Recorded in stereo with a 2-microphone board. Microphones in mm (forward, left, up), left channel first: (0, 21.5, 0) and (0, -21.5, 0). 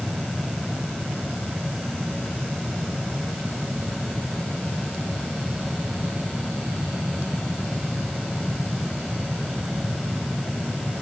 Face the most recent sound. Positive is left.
No sound to turn to.